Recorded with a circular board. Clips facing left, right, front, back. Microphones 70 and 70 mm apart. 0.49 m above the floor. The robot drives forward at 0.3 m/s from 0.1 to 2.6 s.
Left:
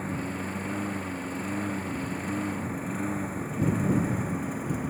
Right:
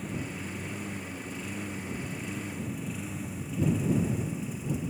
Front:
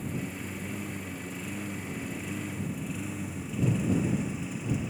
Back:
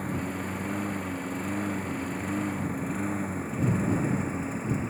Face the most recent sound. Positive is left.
turn(degrees=130)